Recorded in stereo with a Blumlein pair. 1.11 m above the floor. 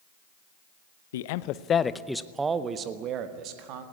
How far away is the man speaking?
About 0.8 m.